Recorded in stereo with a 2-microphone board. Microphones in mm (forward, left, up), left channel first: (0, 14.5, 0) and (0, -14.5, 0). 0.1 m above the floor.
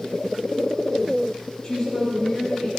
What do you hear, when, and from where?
1.6 s a woman speaking: 25° left (ahead or behind), 3.5 m